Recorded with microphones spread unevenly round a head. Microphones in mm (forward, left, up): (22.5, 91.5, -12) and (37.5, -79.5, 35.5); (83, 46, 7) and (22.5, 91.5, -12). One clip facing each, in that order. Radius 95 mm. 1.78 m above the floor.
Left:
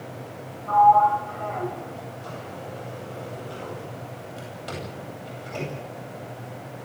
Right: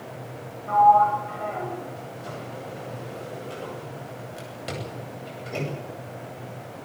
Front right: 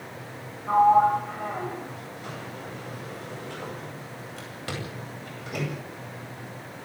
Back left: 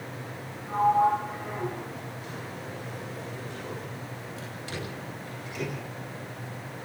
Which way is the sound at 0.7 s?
20° right.